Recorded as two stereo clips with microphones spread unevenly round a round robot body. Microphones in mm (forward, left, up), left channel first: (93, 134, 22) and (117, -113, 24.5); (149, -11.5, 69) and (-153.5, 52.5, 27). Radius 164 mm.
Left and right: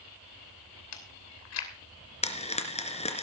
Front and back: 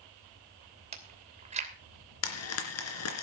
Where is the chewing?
105° left, 2.5 m.